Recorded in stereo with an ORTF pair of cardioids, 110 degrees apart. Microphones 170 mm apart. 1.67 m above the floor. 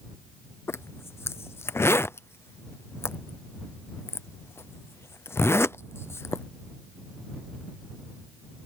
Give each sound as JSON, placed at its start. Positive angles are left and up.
{"t": 0.7, "sound": "a zipper", "azimuth_deg": 15}